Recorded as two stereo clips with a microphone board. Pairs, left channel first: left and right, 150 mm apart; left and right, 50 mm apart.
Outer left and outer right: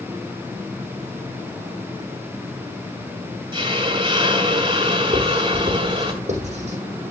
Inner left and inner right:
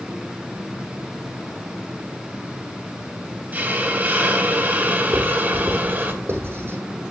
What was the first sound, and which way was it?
A hiss, 30° right (ahead or behind).